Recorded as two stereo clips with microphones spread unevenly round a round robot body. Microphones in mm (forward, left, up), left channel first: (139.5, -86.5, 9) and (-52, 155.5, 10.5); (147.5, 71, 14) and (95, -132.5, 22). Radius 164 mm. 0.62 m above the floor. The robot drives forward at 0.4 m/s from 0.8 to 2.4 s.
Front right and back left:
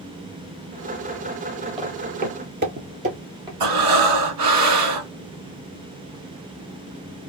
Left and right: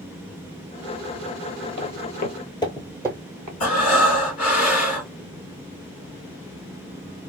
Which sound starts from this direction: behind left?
Breathing, at 3.6 s.